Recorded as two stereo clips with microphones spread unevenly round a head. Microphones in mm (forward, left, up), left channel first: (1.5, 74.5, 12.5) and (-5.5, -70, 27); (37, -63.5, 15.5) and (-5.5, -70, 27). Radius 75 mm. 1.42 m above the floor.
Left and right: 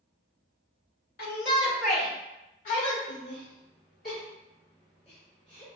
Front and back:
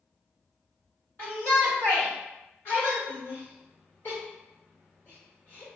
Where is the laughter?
55° left, 1.8 m.